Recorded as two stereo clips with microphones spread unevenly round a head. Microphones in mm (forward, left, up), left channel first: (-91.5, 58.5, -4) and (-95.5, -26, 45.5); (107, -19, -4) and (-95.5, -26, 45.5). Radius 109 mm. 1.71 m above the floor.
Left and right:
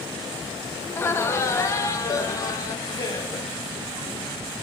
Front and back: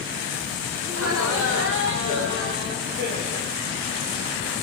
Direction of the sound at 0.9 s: 155° left.